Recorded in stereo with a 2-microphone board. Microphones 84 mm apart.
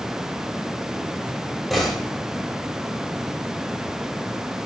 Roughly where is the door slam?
Centre.